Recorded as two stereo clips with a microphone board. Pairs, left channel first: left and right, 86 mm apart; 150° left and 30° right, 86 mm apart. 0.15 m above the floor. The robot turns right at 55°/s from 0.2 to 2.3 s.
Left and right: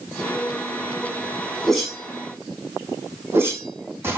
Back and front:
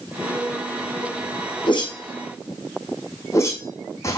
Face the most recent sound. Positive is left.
turn(degrees=-155)